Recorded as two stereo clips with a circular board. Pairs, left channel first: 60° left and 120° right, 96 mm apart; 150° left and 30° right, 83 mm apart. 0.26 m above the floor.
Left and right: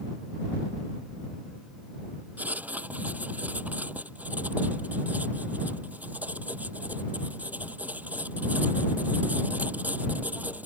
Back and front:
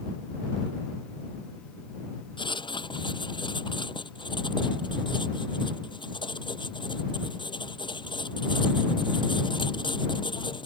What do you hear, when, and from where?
2.4 s writing: 165° left